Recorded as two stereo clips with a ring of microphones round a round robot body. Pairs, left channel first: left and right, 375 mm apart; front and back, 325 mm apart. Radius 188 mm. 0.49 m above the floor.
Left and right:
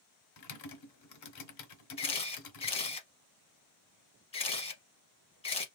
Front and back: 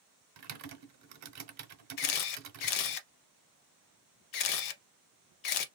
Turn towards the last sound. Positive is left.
turn(degrees=15)